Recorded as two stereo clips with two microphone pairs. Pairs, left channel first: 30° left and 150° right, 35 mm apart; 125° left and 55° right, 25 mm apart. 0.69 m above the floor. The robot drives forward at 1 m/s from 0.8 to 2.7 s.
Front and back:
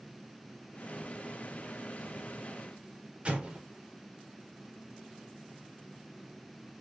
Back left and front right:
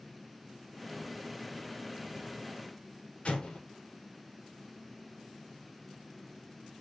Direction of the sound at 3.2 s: 155° left.